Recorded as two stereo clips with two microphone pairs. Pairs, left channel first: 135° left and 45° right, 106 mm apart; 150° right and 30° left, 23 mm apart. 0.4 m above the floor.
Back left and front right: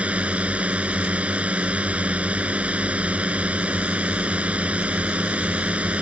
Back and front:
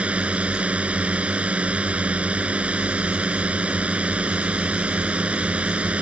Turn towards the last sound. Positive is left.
turn(degrees=35)